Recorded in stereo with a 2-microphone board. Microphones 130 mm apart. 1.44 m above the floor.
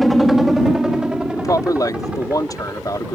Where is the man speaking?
30° left (ahead or behind).